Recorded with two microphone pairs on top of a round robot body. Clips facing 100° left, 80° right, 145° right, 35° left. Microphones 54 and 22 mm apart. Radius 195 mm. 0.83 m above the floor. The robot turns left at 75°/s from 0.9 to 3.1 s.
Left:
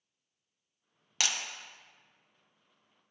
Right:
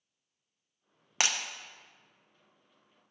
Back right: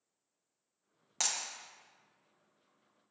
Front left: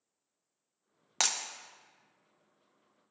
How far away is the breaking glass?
About 0.7 m.